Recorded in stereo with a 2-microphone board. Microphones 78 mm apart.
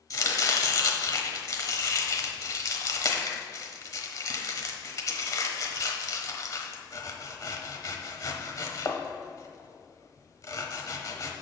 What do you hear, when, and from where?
0.1 s chopping: 45° left (ahead or behind), 1.0 m